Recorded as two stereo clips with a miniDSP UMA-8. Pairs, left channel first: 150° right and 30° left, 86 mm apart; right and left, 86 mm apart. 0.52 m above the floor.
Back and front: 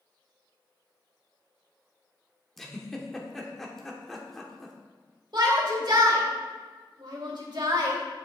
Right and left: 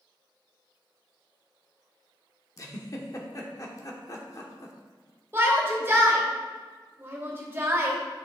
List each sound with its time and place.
2.6 s a giggle: 65° right, 1.2 m
5.3 s a shout: 30° left, 2.5 m